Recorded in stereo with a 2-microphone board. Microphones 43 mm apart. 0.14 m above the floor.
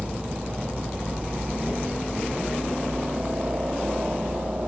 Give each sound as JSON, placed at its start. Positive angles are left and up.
{"t": 0.0, "sound": "a helicopter", "side_deg": -40}